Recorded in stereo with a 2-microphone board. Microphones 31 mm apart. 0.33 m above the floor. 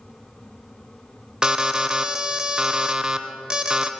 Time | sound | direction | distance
1.4 | an alarm | 20° right (ahead or behind) | 0.5 m